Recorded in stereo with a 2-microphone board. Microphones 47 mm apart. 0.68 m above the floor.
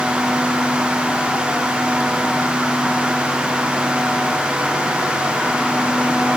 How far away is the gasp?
I don't hear a gasp.